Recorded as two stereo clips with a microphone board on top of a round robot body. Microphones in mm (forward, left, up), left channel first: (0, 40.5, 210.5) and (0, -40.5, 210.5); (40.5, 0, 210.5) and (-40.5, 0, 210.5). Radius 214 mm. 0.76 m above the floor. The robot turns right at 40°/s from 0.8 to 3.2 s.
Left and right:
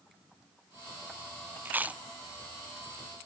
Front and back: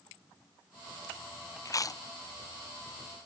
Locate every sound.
1.6 s chewing: 30° right, 0.5 m; by 2.0 s 20° right, 0.5 m